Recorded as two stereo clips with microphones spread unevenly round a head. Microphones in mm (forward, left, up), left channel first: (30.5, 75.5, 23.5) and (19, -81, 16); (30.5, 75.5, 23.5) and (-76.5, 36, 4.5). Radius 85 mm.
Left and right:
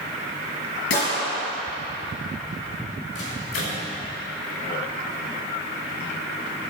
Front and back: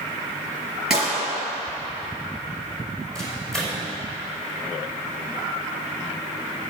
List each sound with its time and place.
0.9 s a gunshot: 110° left, 4.5 m
3.1 s a microwave: 105° left, 4.5 m